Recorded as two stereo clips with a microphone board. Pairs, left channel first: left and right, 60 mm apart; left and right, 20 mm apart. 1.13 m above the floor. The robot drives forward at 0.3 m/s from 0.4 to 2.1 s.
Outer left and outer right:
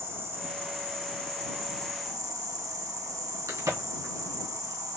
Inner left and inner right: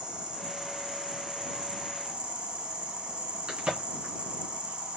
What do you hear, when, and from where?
0.0 s an insect: 50° right (ahead or behind), 1.4 m; by 5.0 s 70° right (ahead or behind), 1.1 m
3.5 s a crack: 75° right (ahead or behind), 2.5 m